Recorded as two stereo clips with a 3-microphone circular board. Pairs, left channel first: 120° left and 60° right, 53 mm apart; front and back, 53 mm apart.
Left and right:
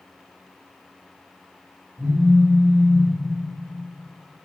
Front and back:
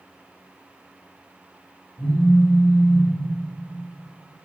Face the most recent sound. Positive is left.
turn(degrees=-10)